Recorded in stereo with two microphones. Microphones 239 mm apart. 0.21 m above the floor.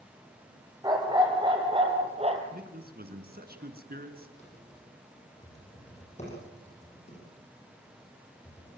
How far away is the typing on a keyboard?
About 9 m.